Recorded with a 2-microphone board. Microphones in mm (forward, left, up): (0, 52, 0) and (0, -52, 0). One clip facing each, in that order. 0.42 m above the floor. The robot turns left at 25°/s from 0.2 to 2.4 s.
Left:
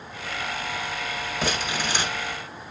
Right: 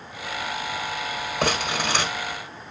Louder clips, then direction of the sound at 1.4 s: Right 4 dB; 75° right (ahead or behind).